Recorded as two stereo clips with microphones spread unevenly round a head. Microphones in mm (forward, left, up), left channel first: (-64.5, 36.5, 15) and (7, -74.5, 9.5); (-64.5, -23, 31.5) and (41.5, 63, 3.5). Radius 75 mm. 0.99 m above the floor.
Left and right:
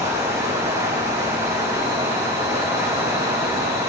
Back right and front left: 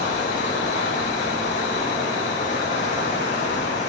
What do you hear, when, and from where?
0.0 s running water: 125° right, 4 m